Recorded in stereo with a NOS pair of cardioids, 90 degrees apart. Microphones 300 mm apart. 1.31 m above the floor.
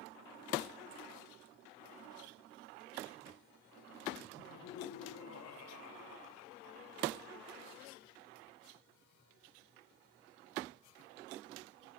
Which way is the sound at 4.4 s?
60° left.